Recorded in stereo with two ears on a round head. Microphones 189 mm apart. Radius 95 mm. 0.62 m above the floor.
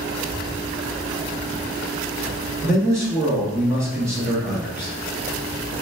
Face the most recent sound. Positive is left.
turn(degrees=-15)  # may be behind; listen again after turning